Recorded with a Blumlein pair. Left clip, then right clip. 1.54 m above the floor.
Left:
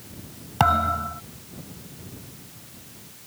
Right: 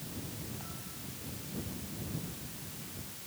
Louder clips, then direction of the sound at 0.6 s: Left 27 dB; 45° left.